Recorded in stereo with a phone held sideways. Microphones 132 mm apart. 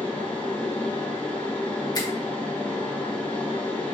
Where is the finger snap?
30° left (ahead or behind), 1.3 m.